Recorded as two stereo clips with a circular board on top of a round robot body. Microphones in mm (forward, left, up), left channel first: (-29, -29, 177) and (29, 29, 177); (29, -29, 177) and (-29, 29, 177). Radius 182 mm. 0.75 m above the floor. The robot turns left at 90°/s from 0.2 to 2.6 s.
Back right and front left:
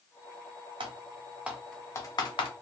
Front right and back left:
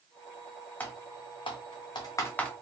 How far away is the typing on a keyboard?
About 0.5 m.